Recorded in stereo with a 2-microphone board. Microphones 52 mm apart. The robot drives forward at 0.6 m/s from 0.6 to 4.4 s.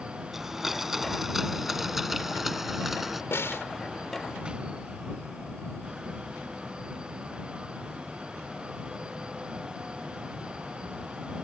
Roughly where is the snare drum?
Left.